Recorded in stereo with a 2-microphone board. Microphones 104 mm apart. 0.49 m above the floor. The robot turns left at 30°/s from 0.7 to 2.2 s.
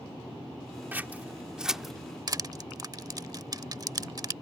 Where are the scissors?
20° right (ahead or behind); by 1.9 s centre (ahead or behind).